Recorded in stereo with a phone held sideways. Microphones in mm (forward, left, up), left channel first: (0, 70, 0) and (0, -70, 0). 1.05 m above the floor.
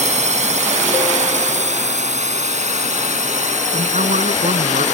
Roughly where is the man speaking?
Right.